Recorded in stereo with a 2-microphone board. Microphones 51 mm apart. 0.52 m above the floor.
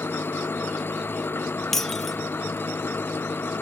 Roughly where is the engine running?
Left.